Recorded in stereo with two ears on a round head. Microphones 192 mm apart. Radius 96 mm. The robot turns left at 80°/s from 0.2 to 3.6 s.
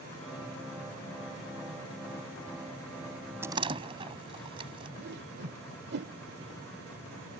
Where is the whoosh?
50° right (ahead or behind).